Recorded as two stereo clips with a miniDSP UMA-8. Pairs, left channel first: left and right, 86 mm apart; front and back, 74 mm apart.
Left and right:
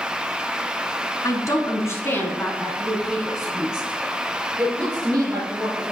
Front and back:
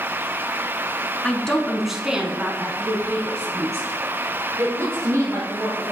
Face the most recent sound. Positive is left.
turn(degrees=-155)